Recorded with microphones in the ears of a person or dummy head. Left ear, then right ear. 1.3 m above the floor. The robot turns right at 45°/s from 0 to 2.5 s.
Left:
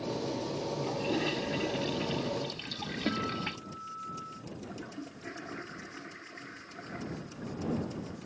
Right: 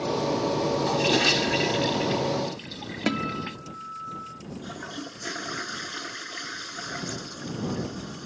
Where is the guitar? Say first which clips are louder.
Right 6 dB; 45° right (ahead or behind).